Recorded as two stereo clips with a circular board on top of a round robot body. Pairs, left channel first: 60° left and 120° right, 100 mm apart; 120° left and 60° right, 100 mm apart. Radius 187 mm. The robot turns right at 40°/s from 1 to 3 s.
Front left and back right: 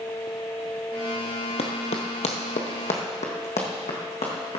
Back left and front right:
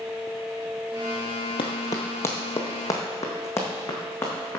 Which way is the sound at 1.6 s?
80° left.